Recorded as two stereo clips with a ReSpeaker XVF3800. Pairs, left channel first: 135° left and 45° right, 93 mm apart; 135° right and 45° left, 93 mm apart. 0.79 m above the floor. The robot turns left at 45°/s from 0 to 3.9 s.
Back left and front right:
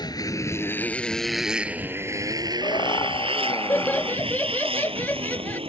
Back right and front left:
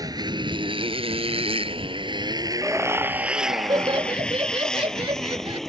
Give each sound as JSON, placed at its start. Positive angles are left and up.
{"t": 0.0, "sound": "a motorcycle", "azimuth_deg": 95}
{"t": 2.6, "sound": "laughter", "azimuth_deg": 125}